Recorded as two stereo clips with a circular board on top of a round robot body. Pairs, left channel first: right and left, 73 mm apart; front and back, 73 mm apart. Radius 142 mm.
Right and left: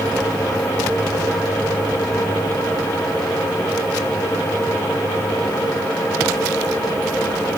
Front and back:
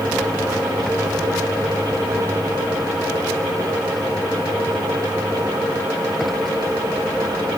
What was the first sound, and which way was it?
Only background noise.